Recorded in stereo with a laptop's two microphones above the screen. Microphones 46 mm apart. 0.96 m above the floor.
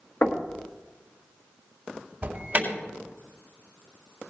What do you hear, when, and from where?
0.2 s knocking: 45° left (ahead or behind), 1.1 m
2.2 s an alarm: 35° right (ahead or behind), 3.5 m